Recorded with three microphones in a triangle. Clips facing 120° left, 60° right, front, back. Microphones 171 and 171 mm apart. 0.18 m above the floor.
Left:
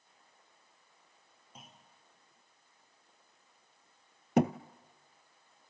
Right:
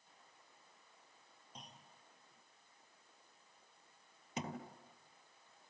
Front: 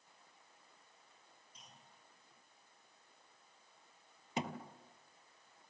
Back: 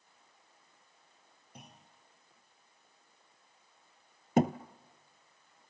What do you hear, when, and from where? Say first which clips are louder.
1.6 s a clunk: left 1 dB, back 10 dB; 155° right, 2.5 m
4.4 s a thud: left 17 dB, back 14 dB; 140° left, 0.9 m